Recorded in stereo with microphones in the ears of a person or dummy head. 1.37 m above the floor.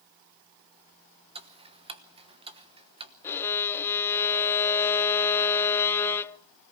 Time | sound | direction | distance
1.4 | ticking | 30° right (ahead or behind) | 1.1 m
3.2 | a violin | 15° left (ahead or behind) | 0.6 m